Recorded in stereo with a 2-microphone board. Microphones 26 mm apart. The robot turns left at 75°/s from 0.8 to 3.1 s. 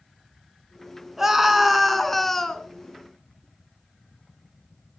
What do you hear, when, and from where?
1.2 s a scream: 15° right (ahead or behind), 1.7 m; by 2.7 s 15° left (ahead or behind), 1.7 m